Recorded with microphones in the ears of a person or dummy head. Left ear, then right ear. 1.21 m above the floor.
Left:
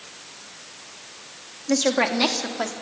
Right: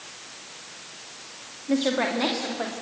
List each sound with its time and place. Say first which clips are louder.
1.7 s a woman speaking: left 3 dB; 80° left, 1.9 m; by 2.7 s 85° left, 3 m